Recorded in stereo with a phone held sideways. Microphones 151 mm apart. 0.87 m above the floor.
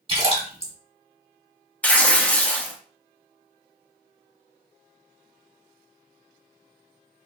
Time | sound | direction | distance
0.1 | a splash | 35° right (ahead or behind) | 1.4 m
1.8 | tearing paper | 10° left (ahead or behind) | 0.5 m